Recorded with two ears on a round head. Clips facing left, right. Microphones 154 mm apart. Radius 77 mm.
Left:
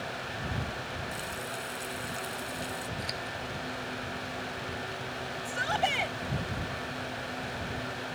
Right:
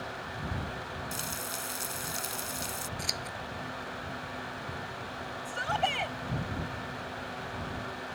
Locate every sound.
1.1 s frying: 55° right (ahead or behind)
3.0 s scissors: 60° right (ahead or behind)
5.5 s a shout: 5° left (ahead or behind)